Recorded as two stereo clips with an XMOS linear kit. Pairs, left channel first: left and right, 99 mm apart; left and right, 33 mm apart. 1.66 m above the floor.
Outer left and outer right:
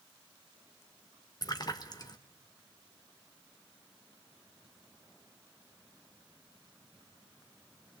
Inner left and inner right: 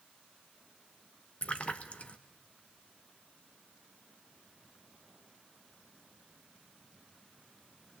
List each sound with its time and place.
1.4 s a splash: 40° left (ahead or behind), 1.3 m